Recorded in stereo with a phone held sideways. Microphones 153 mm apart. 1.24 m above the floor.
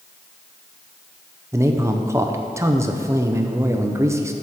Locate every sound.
1.5 s a man speaking: 20° right (ahead or behind), 0.5 m